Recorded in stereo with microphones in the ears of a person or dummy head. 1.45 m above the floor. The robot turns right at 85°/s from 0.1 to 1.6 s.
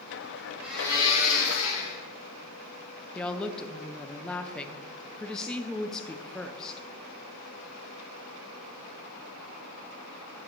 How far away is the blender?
About 3 m.